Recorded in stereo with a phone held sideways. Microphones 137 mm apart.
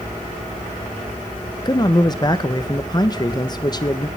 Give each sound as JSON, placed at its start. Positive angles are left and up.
{"t": 1.6, "sound": "a man speaking", "side_deg": 30, "distance_m": 1.2}